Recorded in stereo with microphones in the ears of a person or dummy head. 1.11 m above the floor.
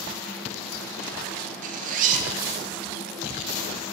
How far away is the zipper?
About 0.5 m.